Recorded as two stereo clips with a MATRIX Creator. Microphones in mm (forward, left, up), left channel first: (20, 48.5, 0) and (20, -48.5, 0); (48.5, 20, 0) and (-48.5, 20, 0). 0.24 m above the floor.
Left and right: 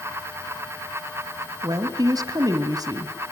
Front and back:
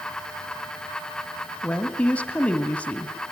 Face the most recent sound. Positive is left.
turn(degrees=-70)